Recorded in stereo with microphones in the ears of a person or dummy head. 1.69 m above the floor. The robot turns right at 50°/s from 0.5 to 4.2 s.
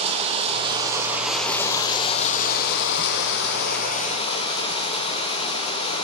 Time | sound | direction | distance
0.0 | running water | 35° right | 0.7 m